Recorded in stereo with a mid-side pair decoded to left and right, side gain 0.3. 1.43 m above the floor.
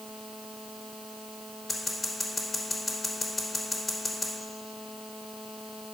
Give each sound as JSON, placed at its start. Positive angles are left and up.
{"t": 1.7, "sound": "scissors", "azimuth_deg": 40, "distance_m": 3.5}